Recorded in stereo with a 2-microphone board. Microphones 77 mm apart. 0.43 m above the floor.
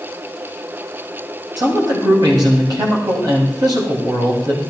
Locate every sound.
1.6 s a man speaking: 65° right (ahead or behind), 2.5 m